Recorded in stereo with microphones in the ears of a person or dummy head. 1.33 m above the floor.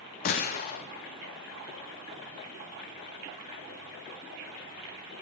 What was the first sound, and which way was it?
A gunshot, 40° left (ahead or behind).